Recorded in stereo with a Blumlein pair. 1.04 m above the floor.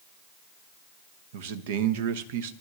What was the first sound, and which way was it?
A man speaking, 55° right.